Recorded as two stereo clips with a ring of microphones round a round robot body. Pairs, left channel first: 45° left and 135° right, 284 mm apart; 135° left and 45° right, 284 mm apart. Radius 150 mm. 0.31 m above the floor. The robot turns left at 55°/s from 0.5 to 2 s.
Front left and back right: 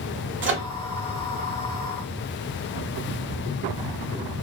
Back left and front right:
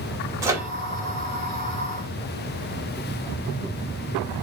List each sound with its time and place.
0.4 s a microwave: 120° right, 0.9 m; by 0.7 s 130° right, 0.9 m